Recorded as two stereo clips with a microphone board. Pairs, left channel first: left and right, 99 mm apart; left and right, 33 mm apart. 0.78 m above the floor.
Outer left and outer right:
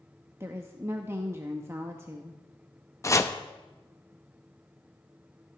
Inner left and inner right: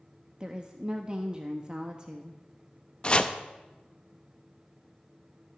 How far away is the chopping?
About 0.6 m.